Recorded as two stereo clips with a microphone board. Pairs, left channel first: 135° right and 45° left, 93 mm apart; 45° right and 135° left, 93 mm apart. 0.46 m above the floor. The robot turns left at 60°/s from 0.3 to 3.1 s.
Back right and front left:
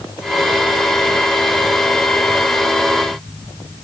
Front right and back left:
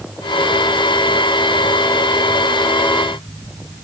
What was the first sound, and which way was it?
Only background noise.